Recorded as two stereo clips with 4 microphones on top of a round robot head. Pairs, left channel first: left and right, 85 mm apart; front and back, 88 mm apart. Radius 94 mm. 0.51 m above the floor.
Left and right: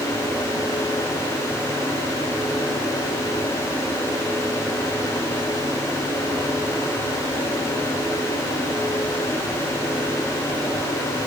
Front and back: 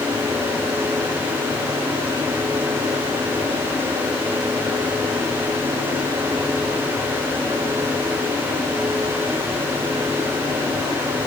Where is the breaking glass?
No breaking glass in this recording.